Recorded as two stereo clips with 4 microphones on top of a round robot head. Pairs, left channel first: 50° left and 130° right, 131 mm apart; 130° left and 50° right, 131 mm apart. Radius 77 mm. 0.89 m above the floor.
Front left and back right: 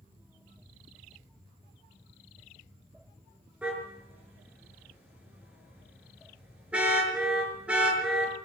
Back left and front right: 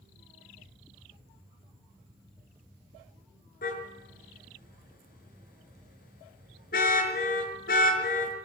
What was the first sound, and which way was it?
A car horn, 150° left.